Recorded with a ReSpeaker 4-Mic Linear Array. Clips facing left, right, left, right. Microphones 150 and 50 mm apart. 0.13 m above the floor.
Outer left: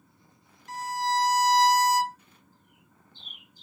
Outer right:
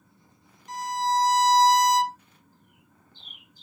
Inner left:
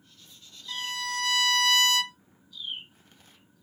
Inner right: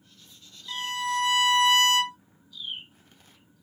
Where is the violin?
20° right (ahead or behind), 1.0 m.